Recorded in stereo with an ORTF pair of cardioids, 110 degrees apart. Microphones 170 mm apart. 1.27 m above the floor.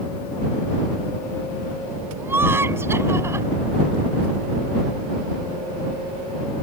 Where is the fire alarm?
I don't hear a fire alarm.